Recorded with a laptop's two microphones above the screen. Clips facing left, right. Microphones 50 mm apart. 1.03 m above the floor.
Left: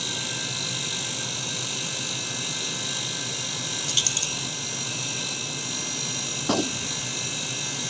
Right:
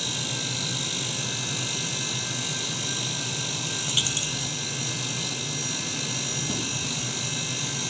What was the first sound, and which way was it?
A dropped coin, 15° right (ahead or behind).